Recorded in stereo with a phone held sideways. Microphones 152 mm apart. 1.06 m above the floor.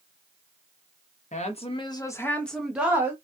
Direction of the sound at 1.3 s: 50° left (ahead or behind).